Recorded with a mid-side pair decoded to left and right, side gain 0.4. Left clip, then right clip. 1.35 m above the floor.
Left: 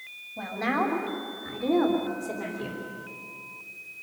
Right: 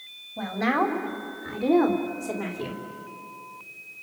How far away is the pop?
I don't hear a pop.